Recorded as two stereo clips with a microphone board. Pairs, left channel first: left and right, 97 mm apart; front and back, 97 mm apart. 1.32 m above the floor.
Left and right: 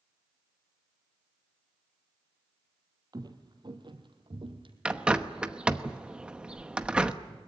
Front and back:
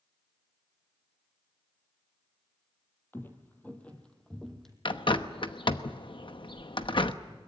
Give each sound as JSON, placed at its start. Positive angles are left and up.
{"t": 3.1, "sound": "footsteps", "azimuth_deg": -65, "distance_m": 2.0}
{"t": 4.8, "sound": "a bird", "azimuth_deg": -15, "distance_m": 0.9}